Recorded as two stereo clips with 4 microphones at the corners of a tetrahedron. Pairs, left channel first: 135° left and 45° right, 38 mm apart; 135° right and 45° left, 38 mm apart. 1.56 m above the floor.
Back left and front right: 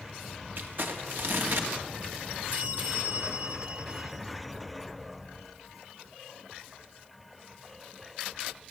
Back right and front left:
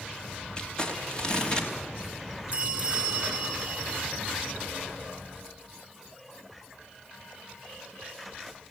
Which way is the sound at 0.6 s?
70° right.